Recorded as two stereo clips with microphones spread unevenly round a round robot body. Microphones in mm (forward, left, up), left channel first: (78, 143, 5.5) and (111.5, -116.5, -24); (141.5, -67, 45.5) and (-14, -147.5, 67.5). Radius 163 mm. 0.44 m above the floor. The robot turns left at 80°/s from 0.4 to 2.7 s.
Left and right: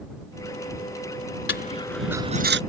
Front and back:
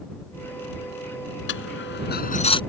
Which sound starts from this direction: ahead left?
A dropped coin, at 1.5 s.